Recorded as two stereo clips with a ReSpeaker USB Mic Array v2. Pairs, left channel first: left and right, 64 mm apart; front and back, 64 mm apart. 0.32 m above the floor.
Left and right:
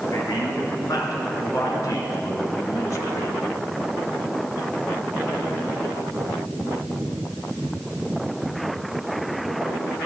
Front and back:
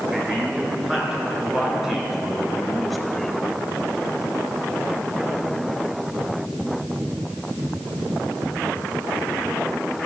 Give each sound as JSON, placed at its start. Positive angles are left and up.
{"t": 0.1, "sound": "a man speaking", "azimuth_deg": 105, "distance_m": 4.5}